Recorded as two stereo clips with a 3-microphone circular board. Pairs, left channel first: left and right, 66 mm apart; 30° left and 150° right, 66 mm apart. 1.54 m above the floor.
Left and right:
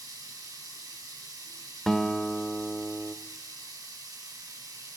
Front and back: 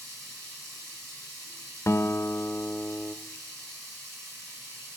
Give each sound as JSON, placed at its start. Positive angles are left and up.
{"t": 0.0, "sound": "running water", "azimuth_deg": -100, "distance_m": 4.5}
{"t": 1.9, "sound": "a guitar", "azimuth_deg": 10, "distance_m": 0.6}